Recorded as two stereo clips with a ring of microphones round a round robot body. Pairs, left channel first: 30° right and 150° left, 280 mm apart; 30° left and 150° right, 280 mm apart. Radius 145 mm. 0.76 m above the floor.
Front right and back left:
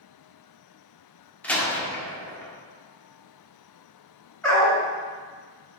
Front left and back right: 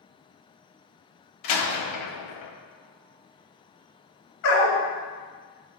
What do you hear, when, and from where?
1.4 s a door slam: 55° left, 1.0 m
4.4 s a dog barking: 55° left, 2 m